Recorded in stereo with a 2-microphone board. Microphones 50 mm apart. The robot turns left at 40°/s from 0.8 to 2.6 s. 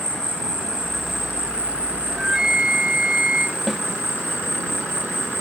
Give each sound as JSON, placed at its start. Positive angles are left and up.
{"t": 0.0, "sound": "an insect", "azimuth_deg": 10}
{"t": 2.1, "sound": "a flute", "side_deg": 0}
{"t": 3.7, "sound": "a snare drum", "side_deg": 0}